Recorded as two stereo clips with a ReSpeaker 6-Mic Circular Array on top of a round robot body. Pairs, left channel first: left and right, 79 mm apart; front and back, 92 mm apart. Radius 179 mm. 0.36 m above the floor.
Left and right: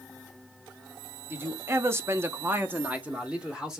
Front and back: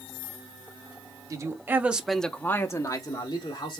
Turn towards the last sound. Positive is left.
turn(degrees=-10)